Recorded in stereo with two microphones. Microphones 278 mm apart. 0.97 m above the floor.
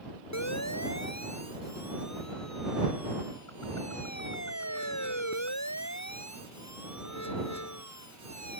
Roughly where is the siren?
Left.